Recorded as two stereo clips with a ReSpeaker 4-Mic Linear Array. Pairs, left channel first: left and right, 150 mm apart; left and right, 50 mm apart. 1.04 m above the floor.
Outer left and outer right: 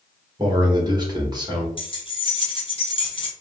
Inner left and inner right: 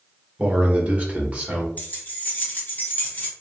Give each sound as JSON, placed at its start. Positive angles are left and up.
{"t": 0.4, "sound": "a man speaking", "side_deg": -30, "distance_m": 1.1}
{"t": 1.8, "sound": "keys jangling", "side_deg": 35, "distance_m": 0.9}